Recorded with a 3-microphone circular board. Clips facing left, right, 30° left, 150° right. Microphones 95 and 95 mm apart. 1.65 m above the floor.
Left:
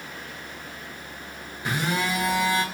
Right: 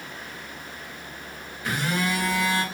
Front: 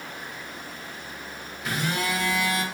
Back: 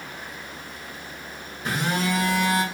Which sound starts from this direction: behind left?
A phone buzzing, at 1.6 s.